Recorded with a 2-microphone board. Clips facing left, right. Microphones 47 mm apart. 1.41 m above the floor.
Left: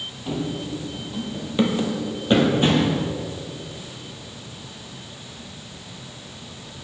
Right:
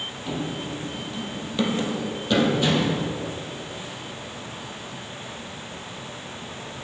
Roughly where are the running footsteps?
Centre.